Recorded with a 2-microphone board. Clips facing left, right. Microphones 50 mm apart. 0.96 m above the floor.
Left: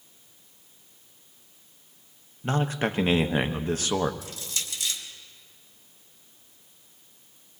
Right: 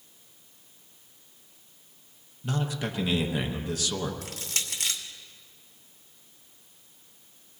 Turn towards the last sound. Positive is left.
turn(degrees=-65)  # may be behind; listen again after turning